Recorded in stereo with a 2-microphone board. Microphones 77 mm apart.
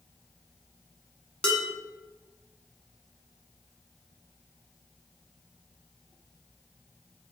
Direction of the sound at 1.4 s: 15° left (ahead or behind).